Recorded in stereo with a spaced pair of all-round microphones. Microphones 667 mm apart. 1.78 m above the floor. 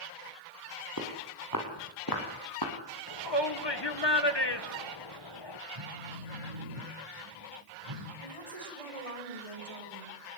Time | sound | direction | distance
1.0 | footsteps | 25° left (ahead or behind) | 6 m
3.1 | a shout | 40° left (ahead or behind) | 1.9 m
5.8 | a phone buzzing | 50° right (ahead or behind) | 4 m
8.2 | a woman speaking | 55° right (ahead or behind) | 6.5 m